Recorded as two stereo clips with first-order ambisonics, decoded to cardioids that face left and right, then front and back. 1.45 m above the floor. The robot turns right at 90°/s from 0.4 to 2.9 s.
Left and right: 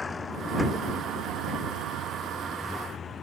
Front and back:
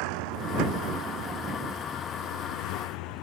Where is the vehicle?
165° left; by 3.2 s 20° left.